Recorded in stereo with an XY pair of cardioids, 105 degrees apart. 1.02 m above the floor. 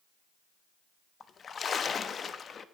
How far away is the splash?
About 0.8 m.